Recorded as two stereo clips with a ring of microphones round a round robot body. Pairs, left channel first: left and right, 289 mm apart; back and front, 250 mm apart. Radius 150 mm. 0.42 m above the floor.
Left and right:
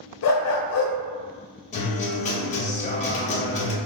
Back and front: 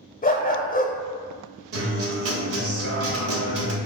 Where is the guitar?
25° left, 0.9 m.